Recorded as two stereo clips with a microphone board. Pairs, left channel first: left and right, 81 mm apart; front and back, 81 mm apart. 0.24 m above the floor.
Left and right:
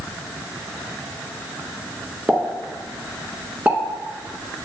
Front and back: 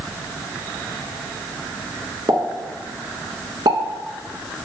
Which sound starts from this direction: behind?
A pop, at 2.3 s.